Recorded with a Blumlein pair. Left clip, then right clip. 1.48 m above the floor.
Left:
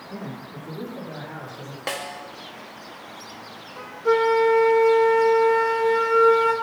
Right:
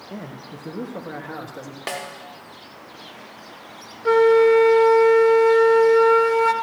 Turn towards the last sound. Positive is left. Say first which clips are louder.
# right 4 dB
turn(degrees=-20)